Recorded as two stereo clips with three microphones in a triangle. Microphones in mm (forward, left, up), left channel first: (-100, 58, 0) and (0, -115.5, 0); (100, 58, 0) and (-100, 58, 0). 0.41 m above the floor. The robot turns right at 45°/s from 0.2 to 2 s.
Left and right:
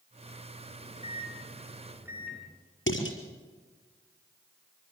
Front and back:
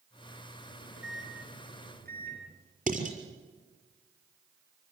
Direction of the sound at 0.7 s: 160° left.